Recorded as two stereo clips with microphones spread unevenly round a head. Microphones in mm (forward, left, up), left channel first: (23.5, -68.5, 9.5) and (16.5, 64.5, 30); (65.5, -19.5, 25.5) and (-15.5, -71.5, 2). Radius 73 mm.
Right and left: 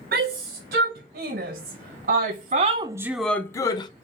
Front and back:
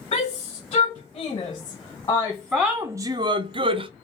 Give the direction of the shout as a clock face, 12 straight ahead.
9 o'clock.